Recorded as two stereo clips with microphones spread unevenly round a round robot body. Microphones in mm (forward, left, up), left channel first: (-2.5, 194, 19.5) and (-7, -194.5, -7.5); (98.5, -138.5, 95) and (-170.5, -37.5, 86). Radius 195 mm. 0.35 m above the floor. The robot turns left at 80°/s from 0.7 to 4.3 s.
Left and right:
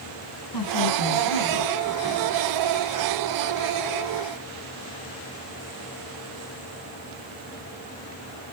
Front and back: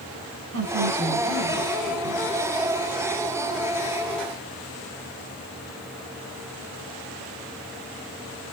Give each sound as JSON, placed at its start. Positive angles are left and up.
{"t": 0.5, "sound": "a woman speaking", "azimuth_deg": 120, "distance_m": 2.5}